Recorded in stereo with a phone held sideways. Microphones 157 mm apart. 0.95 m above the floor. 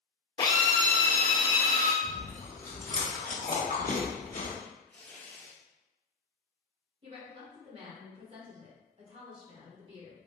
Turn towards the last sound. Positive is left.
turn(degrees=-40)  # may be behind; listen again after turning